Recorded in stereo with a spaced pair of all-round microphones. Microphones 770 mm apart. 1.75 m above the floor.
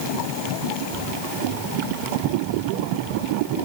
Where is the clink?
No clink in this recording.